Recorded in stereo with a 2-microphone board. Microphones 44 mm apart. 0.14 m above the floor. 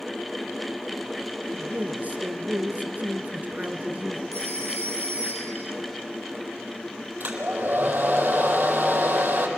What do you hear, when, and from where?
1.5 s a man speaking: 40° right (ahead or behind), 1.9 m
4.3 s a phone ringing: 75° left (ahead or behind), 8 m
7.2 s a hair dryer: 45° right (ahead or behind), 4 m